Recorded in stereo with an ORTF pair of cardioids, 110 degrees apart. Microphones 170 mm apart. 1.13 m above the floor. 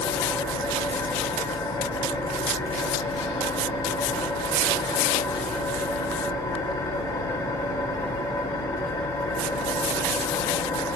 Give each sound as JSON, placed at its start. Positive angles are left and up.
{"t": 0.0, "sound": "an engine running", "azimuth_deg": 25, "distance_m": 4.0}